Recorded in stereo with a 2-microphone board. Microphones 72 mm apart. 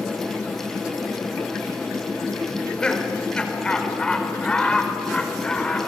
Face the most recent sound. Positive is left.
turn(degrees=15)  # may be behind; listen again after turning